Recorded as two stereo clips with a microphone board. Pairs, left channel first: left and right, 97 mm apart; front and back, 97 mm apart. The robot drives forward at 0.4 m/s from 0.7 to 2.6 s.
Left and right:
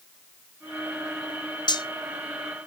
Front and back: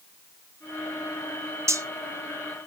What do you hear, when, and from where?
1.7 s cutlery clinking: 120° left, 0.5 m; by 1.9 s 130° left, 0.5 m